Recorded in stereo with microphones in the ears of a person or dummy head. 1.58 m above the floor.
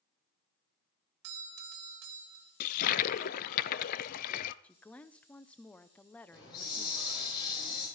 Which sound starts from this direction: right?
A doorbell, at 1.2 s.